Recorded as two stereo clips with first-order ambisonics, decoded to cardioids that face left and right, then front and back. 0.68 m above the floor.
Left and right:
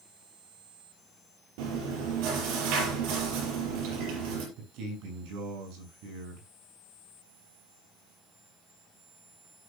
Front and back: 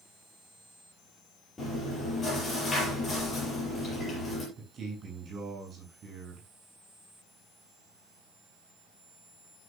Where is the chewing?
75° right, 5.5 m.